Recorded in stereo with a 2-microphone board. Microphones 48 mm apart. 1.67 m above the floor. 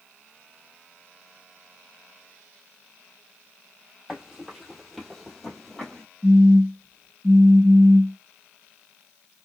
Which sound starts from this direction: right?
A phone buzzing, at 6.2 s.